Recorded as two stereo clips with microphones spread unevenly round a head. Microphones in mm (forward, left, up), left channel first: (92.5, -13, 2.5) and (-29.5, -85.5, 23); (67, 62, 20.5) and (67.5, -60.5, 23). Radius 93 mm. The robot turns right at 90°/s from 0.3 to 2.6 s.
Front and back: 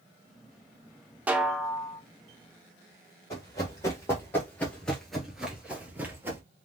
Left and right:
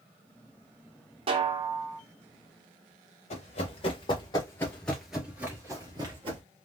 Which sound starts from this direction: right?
A snare drum, at 1.3 s.